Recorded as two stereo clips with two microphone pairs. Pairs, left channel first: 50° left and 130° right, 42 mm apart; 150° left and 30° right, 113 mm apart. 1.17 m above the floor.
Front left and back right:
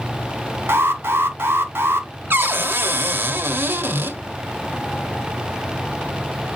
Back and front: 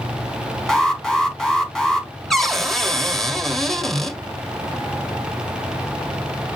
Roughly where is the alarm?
Behind right.